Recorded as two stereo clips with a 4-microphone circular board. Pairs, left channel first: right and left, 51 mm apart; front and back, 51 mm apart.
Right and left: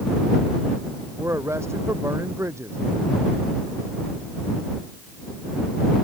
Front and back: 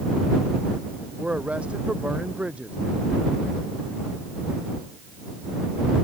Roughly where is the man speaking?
Behind left.